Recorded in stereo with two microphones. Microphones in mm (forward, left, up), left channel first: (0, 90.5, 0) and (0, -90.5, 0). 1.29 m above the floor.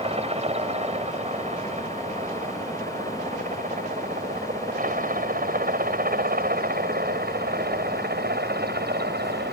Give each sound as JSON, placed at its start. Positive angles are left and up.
{"t": 0.0, "sound": "a helicopter", "side_deg": -35}